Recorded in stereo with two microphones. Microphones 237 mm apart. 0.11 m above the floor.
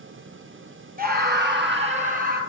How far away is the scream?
About 1.7 m.